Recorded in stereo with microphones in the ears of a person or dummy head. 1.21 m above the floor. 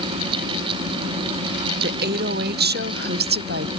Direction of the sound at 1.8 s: 50° right (ahead or behind).